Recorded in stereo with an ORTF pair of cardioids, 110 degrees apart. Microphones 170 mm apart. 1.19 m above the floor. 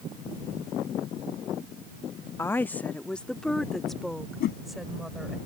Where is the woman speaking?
15° left; by 5.4 s straight ahead.